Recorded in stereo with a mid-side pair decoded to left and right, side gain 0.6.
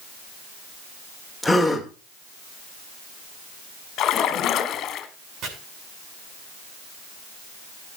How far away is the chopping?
About 7.5 m.